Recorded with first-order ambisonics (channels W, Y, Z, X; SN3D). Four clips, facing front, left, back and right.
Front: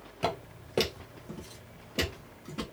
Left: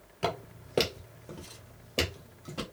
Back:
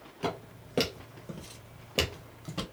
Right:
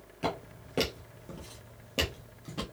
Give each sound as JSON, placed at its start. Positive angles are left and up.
{"t": 0.2, "sound": "footsteps", "azimuth_deg": 40, "distance_m": 1.0}